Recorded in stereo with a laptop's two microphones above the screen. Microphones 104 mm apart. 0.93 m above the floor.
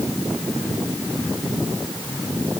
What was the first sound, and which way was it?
Only background noise.